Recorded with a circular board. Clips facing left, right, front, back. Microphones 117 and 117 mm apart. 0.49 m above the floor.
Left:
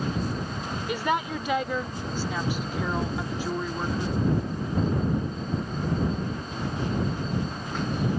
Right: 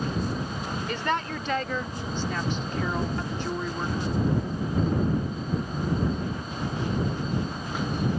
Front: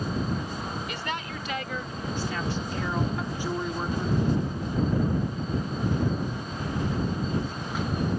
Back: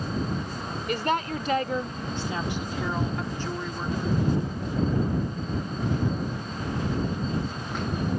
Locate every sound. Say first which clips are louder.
0.9 s a woman speaking: left 3 dB, back 7 dB; 165° left; by 4.1 s 5° left